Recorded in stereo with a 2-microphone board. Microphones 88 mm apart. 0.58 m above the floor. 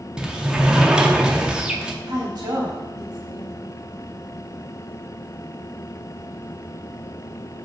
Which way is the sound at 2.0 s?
50° right (ahead or behind).